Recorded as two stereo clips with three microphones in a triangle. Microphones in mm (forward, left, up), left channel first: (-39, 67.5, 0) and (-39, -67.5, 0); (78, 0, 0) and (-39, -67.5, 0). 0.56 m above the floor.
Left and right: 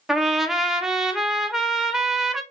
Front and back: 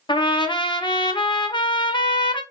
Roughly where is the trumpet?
Ahead.